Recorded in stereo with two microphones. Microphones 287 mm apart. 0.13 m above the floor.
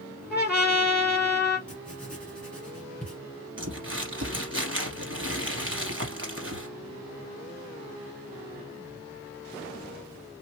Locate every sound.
0.3 s a trumpet: 35° left (ahead or behind), 2.5 m
1.7 s writing: 5° left (ahead or behind), 1.8 m
3.6 s crumpling: 45° right (ahead or behind), 2.0 m